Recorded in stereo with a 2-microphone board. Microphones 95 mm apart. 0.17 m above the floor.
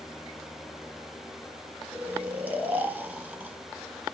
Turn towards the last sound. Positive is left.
turn(degrees=-15)  # may be behind; listen again after turning